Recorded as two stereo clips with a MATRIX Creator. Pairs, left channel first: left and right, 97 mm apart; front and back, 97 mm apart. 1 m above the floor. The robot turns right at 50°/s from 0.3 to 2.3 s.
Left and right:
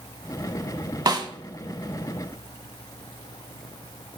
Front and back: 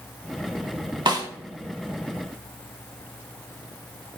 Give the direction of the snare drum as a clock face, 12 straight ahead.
5 o'clock.